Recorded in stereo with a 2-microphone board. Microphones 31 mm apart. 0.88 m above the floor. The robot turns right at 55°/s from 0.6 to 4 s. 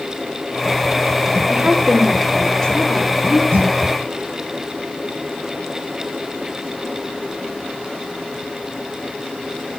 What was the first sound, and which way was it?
A woman speaking, 45° right.